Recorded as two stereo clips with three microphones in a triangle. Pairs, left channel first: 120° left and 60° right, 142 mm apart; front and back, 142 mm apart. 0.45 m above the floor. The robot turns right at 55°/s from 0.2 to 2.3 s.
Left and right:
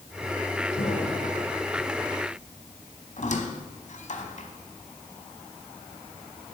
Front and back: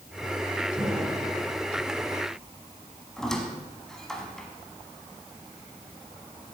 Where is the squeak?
85° left, 1.1 m.